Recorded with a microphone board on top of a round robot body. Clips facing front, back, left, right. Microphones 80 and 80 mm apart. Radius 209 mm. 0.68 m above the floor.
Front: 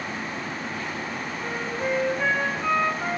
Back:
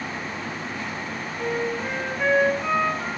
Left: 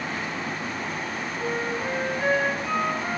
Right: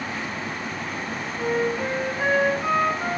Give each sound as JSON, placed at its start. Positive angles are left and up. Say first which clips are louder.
{"t": 1.4, "sound": "a flute", "louder": "back 5 dB, right 5 dB", "azimuth_deg": -90, "distance_m": 1.9}